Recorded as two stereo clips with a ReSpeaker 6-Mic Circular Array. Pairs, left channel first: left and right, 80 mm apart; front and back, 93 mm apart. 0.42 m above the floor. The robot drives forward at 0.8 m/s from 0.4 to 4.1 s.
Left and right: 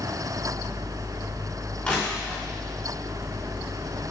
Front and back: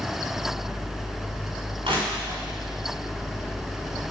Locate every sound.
1.8 s crushing: 165° left, 4 m; by 2.4 s 170° left, 4.5 m